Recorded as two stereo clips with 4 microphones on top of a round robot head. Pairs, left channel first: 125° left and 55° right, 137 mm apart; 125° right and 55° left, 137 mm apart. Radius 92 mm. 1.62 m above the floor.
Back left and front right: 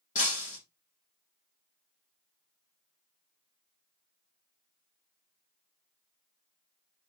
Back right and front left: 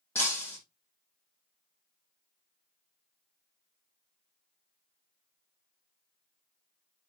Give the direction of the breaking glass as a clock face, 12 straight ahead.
7 o'clock.